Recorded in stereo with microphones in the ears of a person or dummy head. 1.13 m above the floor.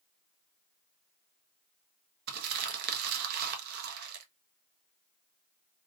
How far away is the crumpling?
About 0.9 m.